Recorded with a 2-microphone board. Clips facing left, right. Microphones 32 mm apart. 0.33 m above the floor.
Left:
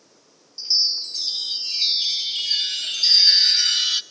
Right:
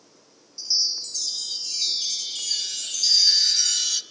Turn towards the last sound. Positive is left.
turn(degrees=35)  # may be behind; listen again after turning